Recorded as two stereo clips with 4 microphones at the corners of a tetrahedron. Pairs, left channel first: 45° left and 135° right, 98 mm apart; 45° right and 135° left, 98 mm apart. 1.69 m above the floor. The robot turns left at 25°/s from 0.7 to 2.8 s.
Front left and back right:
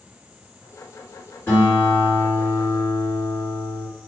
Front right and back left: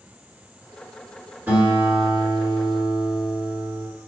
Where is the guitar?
85° left, 1.5 m; by 3.9 s 55° left, 1.5 m.